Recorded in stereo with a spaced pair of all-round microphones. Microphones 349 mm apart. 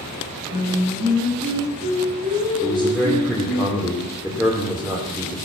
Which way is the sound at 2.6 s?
Centre (ahead or behind).